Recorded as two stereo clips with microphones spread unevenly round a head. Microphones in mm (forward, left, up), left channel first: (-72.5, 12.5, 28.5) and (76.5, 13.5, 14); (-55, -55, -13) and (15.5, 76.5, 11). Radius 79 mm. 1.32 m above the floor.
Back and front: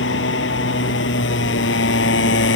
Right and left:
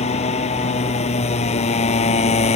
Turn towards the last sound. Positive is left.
turn(degrees=-165)